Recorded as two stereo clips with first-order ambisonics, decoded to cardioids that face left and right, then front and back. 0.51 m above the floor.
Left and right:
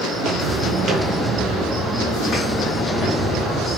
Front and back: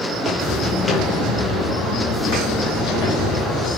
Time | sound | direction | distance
0.1 | footsteps | 120° right | 0.8 m